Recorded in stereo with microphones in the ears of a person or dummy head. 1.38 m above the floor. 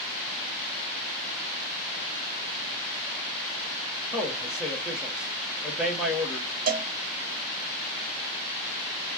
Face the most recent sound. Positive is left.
turn(degrees=-40)  # may be behind; listen again after turning